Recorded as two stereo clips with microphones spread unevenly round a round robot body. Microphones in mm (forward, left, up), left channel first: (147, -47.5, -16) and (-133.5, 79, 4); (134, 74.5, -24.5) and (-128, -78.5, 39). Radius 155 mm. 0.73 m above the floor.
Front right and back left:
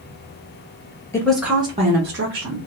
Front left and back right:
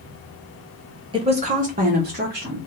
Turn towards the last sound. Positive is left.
turn(degrees=155)